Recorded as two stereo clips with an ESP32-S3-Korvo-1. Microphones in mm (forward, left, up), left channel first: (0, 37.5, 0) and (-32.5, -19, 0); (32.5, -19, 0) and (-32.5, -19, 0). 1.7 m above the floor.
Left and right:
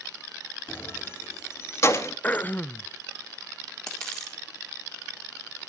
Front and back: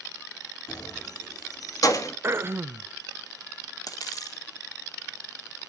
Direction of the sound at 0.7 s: 5° left.